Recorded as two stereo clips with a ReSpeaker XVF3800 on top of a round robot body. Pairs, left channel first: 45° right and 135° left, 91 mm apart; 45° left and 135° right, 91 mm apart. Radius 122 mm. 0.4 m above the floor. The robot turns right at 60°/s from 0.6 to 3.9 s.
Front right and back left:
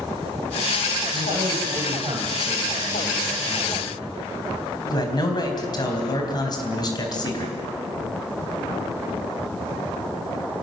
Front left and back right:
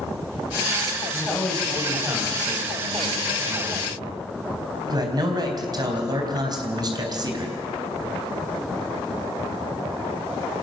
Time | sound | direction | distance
1.1 | a man speaking | 105° left | 4 m